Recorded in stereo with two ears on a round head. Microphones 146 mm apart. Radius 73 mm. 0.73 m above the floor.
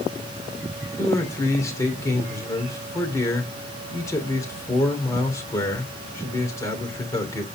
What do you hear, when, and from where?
1.0 s a man speaking: 20° left (ahead or behind), 2.5 m